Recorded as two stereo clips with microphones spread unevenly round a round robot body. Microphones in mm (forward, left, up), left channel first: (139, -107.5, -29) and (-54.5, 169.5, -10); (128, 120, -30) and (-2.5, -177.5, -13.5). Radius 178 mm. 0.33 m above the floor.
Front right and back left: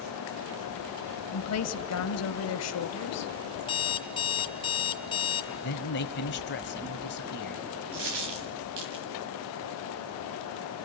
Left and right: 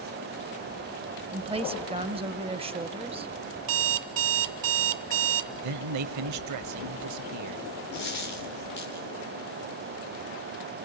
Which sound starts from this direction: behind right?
An alarm clock, at 3.6 s.